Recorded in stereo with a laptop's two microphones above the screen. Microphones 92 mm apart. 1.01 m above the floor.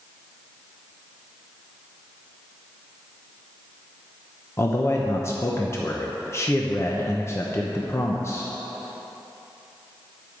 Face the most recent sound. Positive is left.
turn(degrees=30)  # may be behind; listen again after turning